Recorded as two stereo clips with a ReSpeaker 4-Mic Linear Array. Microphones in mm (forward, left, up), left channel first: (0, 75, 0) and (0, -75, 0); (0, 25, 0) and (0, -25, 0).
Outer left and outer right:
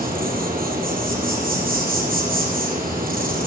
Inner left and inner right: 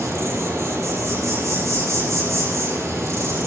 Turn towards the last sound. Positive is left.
turn(degrees=-75)  # may be behind; listen again after turning